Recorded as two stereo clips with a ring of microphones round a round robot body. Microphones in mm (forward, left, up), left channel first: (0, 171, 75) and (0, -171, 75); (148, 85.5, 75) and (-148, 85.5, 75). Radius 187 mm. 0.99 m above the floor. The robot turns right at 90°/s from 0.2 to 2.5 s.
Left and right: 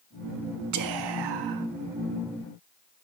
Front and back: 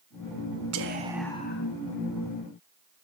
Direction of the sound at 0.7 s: 135° right.